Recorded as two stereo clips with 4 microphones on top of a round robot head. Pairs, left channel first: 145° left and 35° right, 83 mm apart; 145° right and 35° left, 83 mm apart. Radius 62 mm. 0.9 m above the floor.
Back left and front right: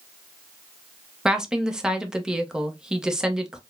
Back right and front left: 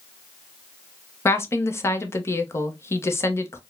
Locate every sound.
1.2 s a woman speaking: 115° right, 0.8 m